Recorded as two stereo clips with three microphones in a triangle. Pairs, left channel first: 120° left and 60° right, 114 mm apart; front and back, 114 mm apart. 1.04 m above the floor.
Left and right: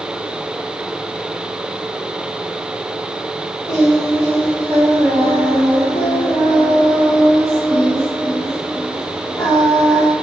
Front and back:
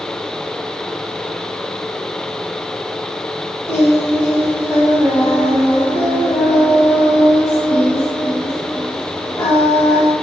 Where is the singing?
60° left, 1.3 m.